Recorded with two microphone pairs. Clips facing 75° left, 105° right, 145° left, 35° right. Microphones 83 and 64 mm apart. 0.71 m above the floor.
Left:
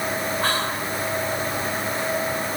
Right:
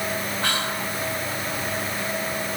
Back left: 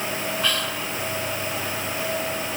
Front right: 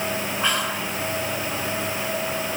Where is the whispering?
30° left, 3.5 m.